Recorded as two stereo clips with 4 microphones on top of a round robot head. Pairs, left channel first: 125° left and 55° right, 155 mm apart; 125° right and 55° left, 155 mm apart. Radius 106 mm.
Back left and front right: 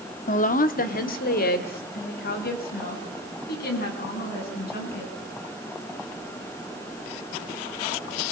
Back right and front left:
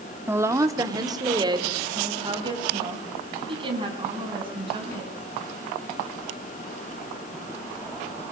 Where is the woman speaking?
125° left, 1.6 m; by 5.1 s 110° left, 8.5 m.